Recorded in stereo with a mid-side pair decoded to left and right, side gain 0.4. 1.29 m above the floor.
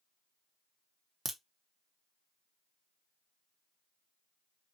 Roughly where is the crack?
Ahead right.